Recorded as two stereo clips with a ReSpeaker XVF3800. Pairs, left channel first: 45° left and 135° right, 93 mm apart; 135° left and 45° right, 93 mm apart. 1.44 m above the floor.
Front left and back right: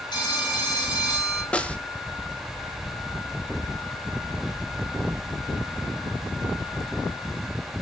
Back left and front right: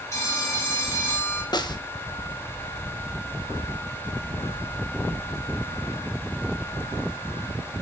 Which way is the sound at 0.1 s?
80° left.